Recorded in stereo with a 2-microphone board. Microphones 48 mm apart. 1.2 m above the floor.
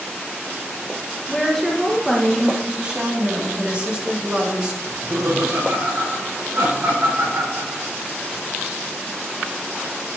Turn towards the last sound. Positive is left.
turn(degrees=-80)